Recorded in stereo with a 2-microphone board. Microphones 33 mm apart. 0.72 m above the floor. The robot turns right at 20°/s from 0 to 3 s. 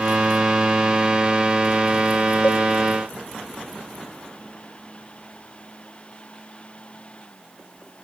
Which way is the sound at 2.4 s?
50° left (ahead or behind).